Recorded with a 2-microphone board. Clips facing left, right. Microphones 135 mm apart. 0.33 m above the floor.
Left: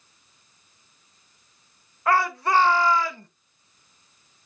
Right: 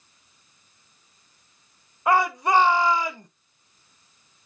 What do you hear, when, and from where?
2.1 s a shout: 15° right (ahead or behind), 0.8 m